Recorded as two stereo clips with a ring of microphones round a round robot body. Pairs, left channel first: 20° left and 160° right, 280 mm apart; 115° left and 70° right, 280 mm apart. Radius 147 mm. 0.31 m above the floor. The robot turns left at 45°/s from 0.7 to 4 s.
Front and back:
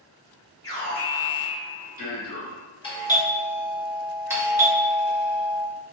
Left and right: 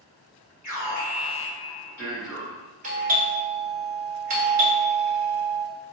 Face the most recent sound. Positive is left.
turn(degrees=-85)